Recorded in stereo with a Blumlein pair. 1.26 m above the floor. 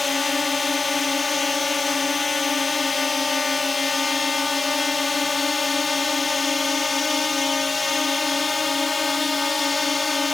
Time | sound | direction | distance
0.0 | a drone | 10° left | ?